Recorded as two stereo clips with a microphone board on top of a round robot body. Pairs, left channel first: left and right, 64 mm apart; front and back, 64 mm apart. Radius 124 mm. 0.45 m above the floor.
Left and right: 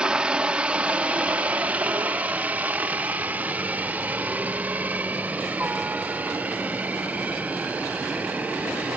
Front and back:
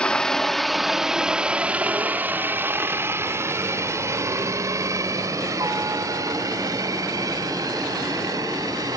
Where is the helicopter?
45° right; by 9.0 s 160° right.